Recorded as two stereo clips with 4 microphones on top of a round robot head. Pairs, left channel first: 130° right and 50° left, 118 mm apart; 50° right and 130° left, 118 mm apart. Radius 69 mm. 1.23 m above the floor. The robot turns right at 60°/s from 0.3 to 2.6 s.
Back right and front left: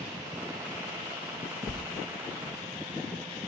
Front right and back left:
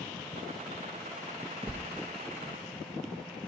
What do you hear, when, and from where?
1.7 s a sliding door: 125° left, 1.6 m; by 1.8 s 135° left, 1.6 m